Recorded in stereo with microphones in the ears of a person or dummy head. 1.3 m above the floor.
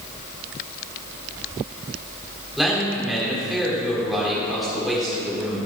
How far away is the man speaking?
About 4 m.